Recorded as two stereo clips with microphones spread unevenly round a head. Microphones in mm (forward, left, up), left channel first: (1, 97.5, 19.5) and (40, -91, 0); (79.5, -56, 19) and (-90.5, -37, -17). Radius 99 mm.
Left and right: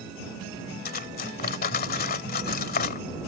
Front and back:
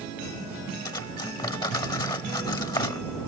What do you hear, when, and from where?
0.8 s cutlery clinking: 60° left